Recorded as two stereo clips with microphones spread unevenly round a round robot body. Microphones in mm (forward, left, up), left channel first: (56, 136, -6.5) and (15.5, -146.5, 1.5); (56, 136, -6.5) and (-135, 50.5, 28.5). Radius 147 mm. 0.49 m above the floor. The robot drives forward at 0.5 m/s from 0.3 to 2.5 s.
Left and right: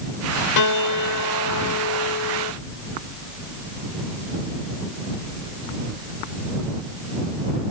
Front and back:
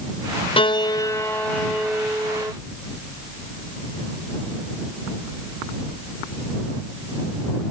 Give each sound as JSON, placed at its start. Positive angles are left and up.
{"t": 0.6, "sound": "a piano", "azimuth_deg": 80}